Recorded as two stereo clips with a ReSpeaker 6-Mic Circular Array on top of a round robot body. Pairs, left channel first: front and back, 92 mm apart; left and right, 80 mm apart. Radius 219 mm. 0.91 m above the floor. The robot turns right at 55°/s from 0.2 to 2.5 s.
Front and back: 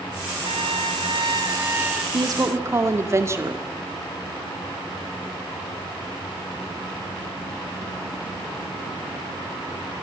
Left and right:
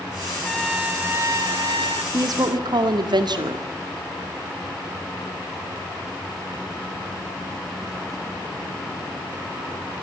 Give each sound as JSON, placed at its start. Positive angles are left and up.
{"t": 0.4, "sound": "a trumpet", "azimuth_deg": 175, "distance_m": 2.5}
{"t": 2.1, "sound": "a woman speaking", "azimuth_deg": -135, "distance_m": 2.5}